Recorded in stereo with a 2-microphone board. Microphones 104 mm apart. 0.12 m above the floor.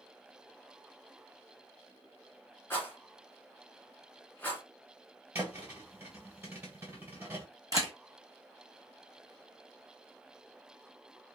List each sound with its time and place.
2.7 s a rattle: 20° left (ahead or behind), 1.2 m
5.3 s a thud: 20° right (ahead or behind), 1.5 m
7.7 s a camera shutter: 35° right (ahead or behind), 1.2 m